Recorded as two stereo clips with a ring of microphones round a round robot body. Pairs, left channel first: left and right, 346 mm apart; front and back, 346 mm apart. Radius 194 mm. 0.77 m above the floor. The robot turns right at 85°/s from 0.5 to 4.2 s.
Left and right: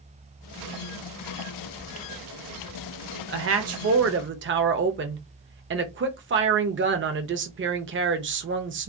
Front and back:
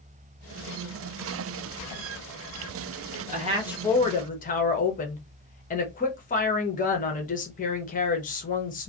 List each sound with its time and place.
3.3 s a woman speaking: 130° right, 0.6 m; by 8.9 s 55° right, 0.6 m